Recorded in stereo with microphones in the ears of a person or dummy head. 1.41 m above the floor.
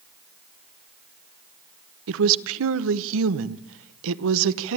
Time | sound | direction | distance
2.1 | a woman speaking | 75° right (ahead or behind) | 0.9 m